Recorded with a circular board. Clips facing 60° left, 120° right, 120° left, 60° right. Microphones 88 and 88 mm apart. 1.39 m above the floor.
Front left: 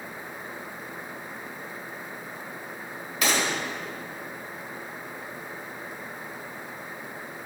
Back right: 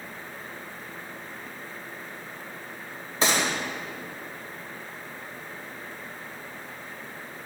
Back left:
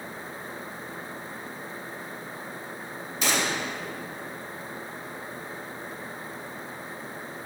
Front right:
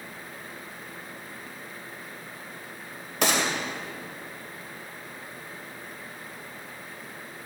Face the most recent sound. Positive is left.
turn(degrees=-65)